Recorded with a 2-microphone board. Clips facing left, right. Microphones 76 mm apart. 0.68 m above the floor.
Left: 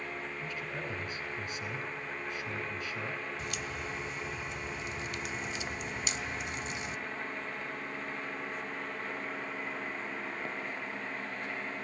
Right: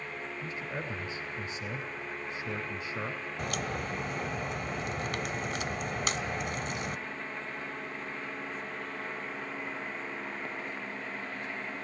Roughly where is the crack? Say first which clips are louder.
Right 4 dB; right.